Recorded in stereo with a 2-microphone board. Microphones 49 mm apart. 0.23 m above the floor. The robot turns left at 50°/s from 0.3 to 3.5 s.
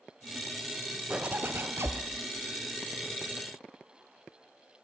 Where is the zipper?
25° right, 1.3 m; by 2.0 s 70° right, 1.3 m.